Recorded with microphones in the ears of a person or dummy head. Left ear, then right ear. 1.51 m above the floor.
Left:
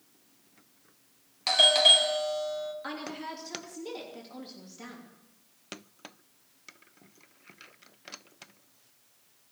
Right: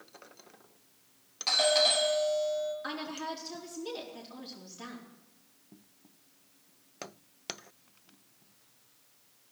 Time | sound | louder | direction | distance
1.5 | a doorbell | left 6 dB | 20° left (ahead or behind) | 1.0 m
2.8 | a woman speaking | right 1 dB | centre (ahead or behind) | 3 m